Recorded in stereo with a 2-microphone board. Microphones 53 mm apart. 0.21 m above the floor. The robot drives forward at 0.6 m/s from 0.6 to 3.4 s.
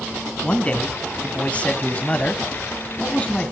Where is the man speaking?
20° left (ahead or behind), 1.9 m; by 3.5 s 25° left (ahead or behind), 1.9 m.